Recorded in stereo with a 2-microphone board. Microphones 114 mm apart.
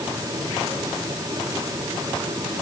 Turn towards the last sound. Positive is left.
No sound to turn to.